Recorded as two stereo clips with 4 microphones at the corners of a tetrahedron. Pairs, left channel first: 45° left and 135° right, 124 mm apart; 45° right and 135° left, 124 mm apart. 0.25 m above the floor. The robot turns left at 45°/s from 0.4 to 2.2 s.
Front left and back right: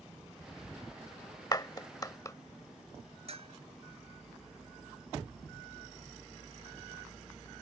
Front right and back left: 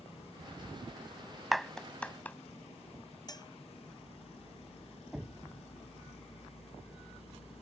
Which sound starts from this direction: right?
A bell, at 3.3 s.